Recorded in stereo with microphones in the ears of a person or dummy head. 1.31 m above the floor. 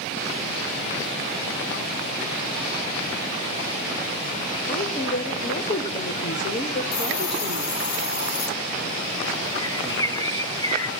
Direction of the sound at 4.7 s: 40° left (ahead or behind).